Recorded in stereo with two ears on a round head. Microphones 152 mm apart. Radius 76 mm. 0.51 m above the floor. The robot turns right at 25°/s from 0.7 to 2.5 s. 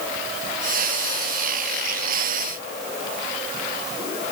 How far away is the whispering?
I don't hear whispering.